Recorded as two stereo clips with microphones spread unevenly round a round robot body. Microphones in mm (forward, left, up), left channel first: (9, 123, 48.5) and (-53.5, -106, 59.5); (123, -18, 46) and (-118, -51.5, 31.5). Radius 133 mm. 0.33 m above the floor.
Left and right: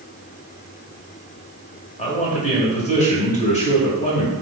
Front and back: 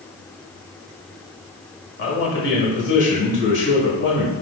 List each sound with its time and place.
2.0 s a man speaking: 25° left, 1.8 m